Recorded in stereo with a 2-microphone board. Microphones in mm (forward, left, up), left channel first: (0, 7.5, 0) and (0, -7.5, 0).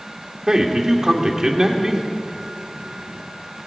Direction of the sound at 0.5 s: 40° right (ahead or behind).